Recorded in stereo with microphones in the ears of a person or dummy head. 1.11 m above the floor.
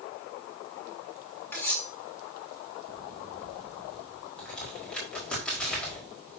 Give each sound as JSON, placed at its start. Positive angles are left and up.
{"t": 1.5, "sound": "cutlery clinking", "side_deg": 5, "distance_m": 4.5}
{"t": 4.4, "sound": "a crack", "side_deg": 0, "distance_m": 4.5}